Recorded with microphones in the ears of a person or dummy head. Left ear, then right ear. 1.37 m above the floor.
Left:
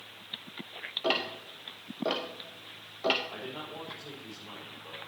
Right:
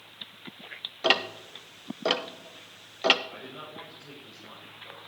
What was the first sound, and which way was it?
Ticking, 55° right (ahead or behind).